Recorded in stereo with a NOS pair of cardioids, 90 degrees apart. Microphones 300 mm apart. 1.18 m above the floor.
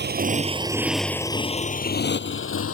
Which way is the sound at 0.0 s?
35° right.